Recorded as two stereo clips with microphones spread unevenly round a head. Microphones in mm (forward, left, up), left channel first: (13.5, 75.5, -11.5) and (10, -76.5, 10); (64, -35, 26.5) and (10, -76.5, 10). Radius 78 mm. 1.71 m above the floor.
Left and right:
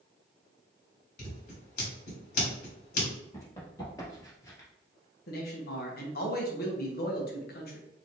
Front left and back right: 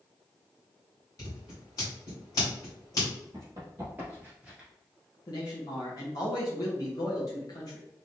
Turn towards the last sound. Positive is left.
turn(degrees=65)